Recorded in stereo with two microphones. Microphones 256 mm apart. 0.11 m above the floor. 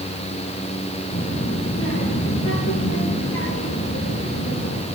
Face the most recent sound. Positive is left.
turn(degrees=70)  # may be behind; listen again after turning